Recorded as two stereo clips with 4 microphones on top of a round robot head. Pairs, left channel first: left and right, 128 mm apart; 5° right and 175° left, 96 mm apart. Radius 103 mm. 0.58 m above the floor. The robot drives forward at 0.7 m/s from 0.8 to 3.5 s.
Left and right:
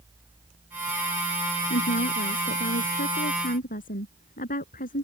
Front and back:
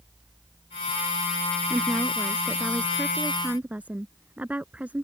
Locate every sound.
1.7 s a woman speaking: 90° left; by 5.0 s 100° left